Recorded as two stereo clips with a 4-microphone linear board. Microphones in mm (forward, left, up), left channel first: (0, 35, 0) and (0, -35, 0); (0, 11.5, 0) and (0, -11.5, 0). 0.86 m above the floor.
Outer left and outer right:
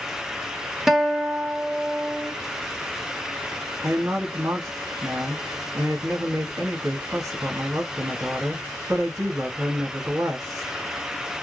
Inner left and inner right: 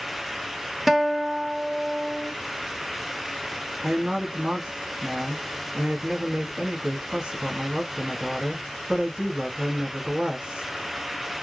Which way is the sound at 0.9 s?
5° right (ahead or behind).